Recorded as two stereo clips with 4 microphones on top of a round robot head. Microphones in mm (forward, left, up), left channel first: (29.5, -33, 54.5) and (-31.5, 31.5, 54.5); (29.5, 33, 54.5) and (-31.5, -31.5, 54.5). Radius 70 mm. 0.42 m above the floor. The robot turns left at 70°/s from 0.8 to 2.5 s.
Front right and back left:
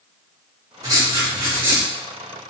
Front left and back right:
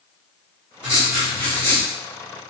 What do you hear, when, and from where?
0.8 s writing: 150° left, 1.4 m; by 1.9 s 75° left, 1.4 m